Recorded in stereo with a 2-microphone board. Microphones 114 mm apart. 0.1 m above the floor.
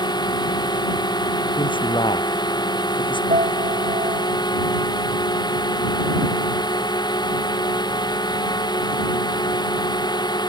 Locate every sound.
0.0 s a drone: 35° left (ahead or behind)
1.6 s a man speaking: 45° left (ahead or behind)
3.3 s a piano: 75° right (ahead or behind)